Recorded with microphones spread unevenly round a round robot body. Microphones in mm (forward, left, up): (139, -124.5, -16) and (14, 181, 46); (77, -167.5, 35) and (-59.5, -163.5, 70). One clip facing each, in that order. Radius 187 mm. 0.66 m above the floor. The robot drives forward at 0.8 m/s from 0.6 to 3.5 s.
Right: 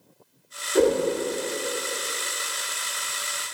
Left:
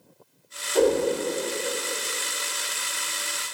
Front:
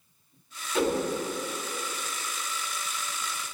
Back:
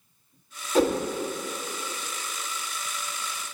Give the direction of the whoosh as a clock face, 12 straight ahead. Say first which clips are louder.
Right 1 dB, back 4 dB; 4 o'clock.